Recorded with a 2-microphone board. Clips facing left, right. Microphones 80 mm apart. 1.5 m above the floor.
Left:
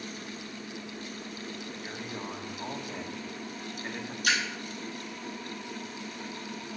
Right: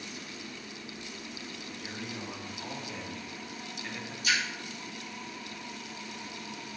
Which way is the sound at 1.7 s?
30° left (ahead or behind).